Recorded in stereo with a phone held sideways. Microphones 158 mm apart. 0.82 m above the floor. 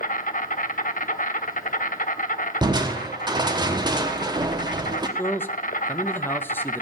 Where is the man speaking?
15° left (ahead or behind), 0.7 m.